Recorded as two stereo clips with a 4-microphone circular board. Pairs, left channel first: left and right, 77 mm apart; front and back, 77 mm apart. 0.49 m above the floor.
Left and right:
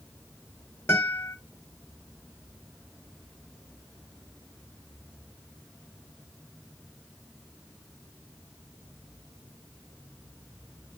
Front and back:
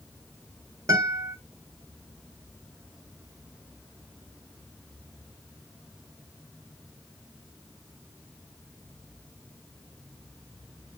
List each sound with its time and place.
0.9 s a guitar: 145° left, 1.4 m